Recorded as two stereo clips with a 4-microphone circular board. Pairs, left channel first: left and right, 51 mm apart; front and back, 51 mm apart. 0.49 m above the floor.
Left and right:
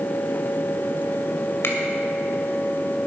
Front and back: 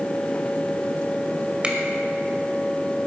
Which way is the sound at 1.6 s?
115° left.